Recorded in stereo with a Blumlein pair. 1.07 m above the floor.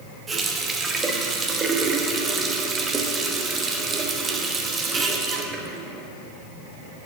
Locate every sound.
0.3 s a running tap: 20° right, 1.1 m